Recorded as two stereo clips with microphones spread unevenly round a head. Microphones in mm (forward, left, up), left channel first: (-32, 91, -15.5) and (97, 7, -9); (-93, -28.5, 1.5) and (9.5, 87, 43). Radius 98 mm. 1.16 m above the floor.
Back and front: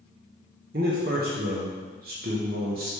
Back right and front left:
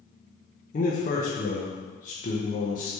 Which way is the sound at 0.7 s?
80° right.